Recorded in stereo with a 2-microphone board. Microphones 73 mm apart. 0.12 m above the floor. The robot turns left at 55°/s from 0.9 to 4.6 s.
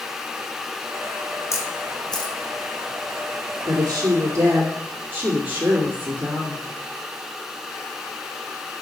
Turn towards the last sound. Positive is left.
turn(degrees=-140)